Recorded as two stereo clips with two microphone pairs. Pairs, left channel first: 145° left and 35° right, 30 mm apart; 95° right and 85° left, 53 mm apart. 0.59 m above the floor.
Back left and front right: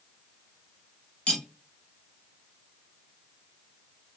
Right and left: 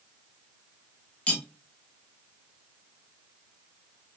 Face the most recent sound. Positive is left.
turn(degrees=-165)